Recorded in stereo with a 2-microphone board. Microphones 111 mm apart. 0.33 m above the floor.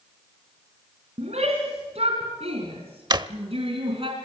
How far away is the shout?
About 3.5 m.